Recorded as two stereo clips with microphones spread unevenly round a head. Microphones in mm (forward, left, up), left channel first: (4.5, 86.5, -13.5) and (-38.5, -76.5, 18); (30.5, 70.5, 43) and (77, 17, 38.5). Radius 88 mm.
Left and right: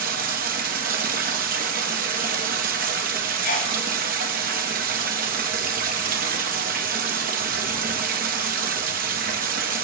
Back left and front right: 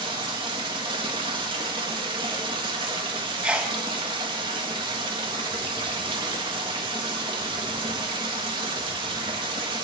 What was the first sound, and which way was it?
Running water, 80° right.